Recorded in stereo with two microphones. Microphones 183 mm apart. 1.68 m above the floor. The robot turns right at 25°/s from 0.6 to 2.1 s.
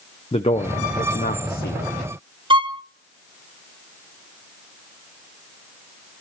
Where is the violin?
25° right (ahead or behind), 0.8 m.